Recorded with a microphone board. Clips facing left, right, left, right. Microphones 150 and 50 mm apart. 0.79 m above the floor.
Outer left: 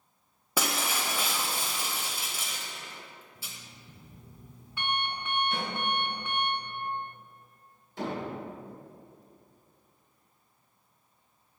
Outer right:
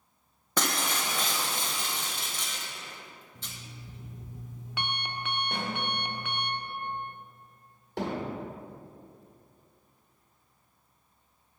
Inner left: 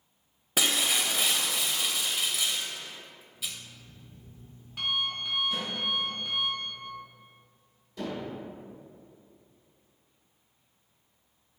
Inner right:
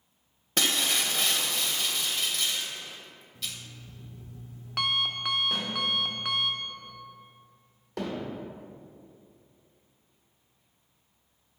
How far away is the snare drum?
About 1.8 m.